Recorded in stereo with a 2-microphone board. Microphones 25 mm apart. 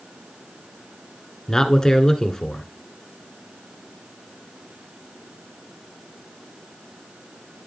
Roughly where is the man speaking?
Left.